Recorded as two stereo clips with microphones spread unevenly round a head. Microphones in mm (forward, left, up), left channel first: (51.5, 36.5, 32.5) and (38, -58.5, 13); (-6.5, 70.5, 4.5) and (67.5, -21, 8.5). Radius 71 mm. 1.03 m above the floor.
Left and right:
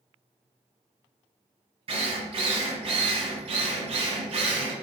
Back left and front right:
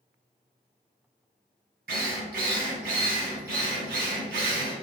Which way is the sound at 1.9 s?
75° right.